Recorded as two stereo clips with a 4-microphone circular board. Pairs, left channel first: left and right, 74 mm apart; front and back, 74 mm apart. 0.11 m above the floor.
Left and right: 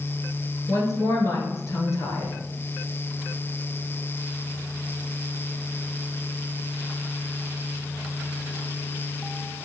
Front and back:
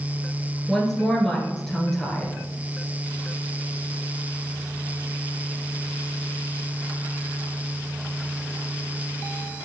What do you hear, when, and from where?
0.7 s a woman speaking: 80° left, 1.6 m